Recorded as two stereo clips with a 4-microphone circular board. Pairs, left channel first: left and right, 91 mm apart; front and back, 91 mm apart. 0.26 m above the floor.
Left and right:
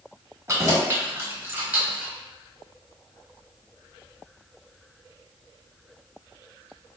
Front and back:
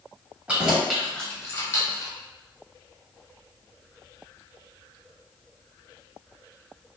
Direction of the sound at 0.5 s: 115° right.